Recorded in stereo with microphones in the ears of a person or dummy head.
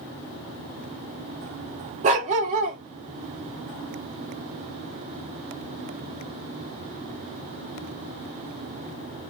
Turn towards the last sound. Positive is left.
turn(degrees=-45)  # may be behind; listen again after turning